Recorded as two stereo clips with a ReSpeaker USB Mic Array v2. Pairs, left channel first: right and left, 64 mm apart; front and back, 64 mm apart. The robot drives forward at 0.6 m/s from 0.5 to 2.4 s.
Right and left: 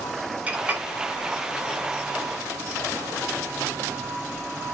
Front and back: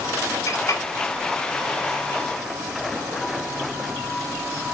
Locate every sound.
0.5 s a clink: 25° left, 1.2 m; by 0.8 s 30° left, 1.0 m